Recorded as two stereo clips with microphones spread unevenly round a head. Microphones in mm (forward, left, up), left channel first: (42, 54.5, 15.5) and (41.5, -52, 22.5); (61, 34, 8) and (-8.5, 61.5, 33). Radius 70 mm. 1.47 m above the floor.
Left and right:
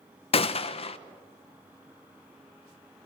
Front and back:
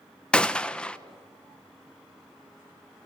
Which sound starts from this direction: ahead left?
A gunshot, at 0.3 s.